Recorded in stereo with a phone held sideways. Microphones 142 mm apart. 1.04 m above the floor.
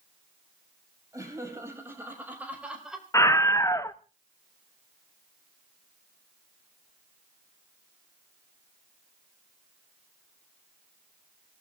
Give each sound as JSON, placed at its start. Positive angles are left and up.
{"t": 1.1, "sound": "laughter", "side_deg": -20, "distance_m": 6.0}
{"t": 3.1, "sound": "a scream", "side_deg": 20, "distance_m": 0.9}